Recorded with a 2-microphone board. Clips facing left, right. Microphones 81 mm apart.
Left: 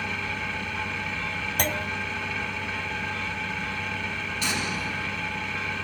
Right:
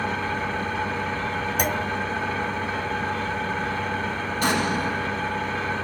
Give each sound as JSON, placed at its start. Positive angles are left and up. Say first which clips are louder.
{"t": 0.0, "sound": "an engine running", "louder": "right 6 dB", "side_deg": -35, "distance_m": 1.2}
{"t": 1.6, "sound": "a clunk", "louder": "right 2 dB", "side_deg": -10, "distance_m": 0.6}
{"t": 4.4, "sound": "an explosion", "louder": "right 8 dB", "side_deg": -45, "distance_m": 2.0}